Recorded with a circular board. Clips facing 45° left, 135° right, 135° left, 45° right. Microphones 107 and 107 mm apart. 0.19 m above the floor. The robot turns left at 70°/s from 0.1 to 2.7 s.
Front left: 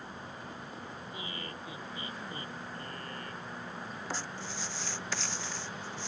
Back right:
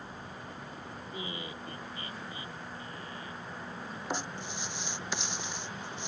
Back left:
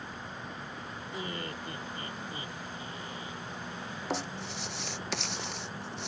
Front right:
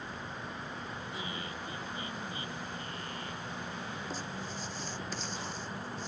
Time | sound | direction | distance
1.1 | laughter | 170° left | ?
4.1 | writing | 155° left | ?